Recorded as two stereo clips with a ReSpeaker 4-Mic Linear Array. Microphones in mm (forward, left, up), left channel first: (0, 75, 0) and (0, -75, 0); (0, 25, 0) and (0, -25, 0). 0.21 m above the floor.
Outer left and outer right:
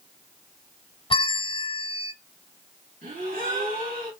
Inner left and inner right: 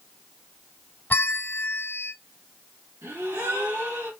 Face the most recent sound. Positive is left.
turn(degrees=-75)  # may be behind; listen again after turning